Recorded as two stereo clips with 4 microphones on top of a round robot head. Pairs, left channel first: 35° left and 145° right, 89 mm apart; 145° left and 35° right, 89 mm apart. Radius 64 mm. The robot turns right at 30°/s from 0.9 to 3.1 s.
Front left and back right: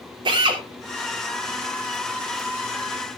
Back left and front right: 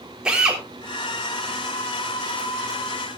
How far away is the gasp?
No gasp in this recording.